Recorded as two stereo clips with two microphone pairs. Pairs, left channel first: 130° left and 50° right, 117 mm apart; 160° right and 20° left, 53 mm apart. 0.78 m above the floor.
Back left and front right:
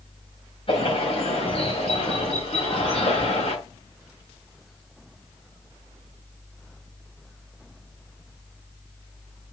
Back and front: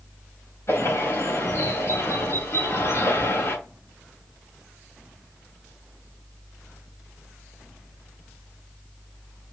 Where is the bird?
165° left, 4 m.